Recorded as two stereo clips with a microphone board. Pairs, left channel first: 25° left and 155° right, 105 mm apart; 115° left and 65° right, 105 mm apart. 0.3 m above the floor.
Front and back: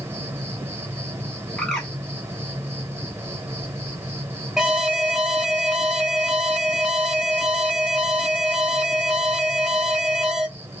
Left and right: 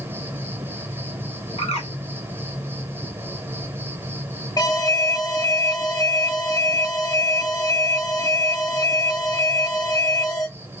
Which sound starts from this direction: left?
A bird, at 1.6 s.